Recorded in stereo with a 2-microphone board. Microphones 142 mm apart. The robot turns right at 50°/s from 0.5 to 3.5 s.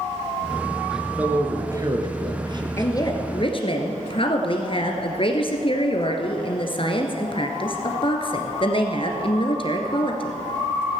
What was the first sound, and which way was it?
A man speaking, 5° right (ahead or behind).